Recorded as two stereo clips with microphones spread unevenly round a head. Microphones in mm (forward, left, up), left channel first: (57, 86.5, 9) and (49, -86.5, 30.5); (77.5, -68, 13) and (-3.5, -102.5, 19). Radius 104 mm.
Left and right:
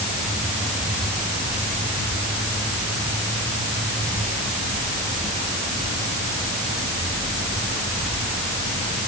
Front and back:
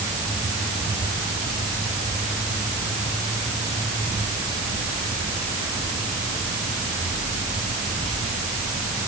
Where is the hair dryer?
I don't hear a hair dryer.